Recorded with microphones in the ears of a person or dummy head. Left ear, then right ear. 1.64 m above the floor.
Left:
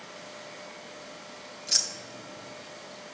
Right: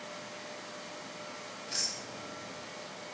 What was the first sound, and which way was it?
Keys jangling, 40° left (ahead or behind).